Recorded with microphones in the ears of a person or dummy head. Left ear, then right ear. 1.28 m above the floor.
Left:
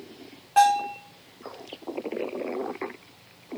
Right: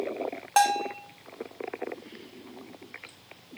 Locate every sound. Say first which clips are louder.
0.6 s a bell: left 4 dB; 25° right (ahead or behind), 0.5 m